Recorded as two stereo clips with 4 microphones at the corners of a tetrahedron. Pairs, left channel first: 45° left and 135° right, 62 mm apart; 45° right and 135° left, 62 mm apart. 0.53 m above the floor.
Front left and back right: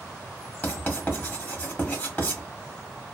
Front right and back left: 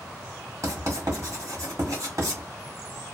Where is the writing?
105° left, 1.6 m.